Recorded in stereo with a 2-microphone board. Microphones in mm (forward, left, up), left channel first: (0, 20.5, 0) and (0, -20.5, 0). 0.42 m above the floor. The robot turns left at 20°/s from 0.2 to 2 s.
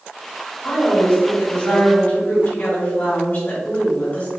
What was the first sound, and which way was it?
A woman speaking, 20° left (ahead or behind).